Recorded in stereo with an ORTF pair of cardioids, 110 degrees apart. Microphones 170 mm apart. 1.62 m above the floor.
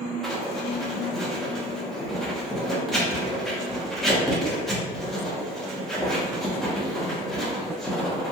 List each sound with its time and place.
0.2 s writing: straight ahead, 1.0 m